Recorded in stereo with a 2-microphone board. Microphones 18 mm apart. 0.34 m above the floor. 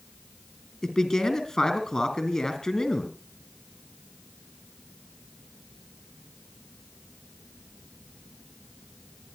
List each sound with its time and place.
0.8 s a man speaking: 30° left (ahead or behind), 3.5 m